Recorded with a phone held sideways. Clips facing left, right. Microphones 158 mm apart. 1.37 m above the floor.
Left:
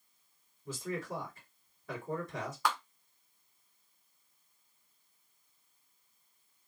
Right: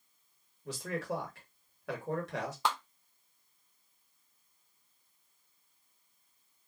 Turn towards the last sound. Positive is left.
turn(degrees=-25)  # may be behind; listen again after turning